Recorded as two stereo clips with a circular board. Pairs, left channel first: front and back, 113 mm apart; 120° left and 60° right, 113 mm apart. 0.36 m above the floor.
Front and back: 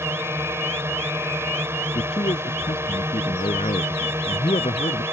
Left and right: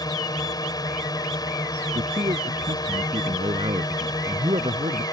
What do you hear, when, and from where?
0.0 s a drone: 130° left
1.9 s a man speaking: 25° right